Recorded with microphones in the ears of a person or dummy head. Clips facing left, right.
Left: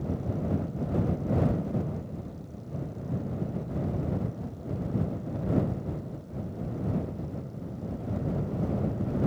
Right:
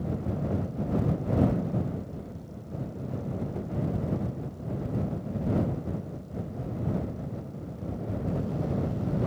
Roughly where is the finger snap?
No finger snap in this recording.